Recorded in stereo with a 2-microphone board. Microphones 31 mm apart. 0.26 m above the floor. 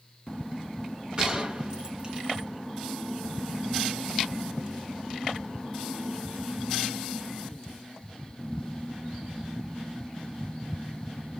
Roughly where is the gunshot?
Right.